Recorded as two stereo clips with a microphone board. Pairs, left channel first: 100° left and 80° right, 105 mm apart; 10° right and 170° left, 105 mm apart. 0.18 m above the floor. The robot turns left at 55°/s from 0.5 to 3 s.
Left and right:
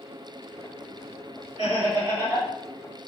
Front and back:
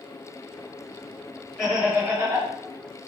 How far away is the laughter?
About 1.7 m.